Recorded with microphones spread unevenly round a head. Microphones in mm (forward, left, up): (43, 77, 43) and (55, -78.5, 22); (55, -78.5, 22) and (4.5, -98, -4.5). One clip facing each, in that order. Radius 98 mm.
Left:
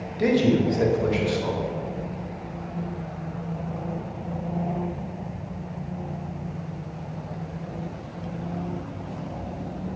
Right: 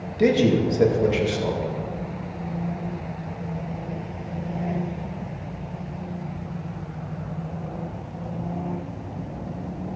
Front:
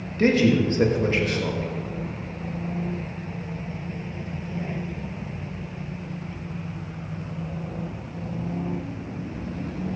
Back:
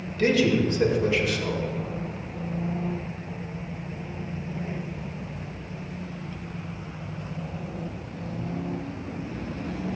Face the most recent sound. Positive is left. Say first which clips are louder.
# right 1 dB, front 2 dB
turn(degrees=-20)